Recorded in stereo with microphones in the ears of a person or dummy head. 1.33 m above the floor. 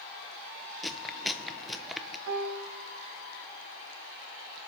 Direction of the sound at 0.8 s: Centre (ahead or behind).